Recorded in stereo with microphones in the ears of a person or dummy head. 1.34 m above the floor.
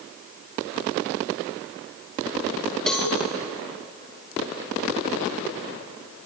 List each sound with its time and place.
2.9 s a cowbell: 5° left (ahead or behind), 3 m